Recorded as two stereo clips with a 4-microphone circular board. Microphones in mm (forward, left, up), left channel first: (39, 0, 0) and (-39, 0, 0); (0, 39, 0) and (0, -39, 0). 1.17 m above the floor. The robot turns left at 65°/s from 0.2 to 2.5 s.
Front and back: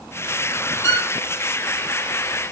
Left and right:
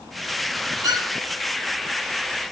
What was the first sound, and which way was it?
A violin, 50° right.